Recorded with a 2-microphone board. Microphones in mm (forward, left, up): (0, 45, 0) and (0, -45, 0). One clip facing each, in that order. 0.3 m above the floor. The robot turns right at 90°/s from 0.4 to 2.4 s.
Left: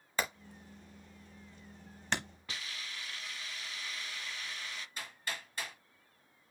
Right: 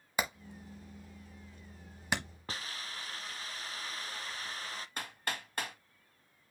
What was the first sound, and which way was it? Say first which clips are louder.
Hammering: right 1 dB; 15° right (ahead or behind).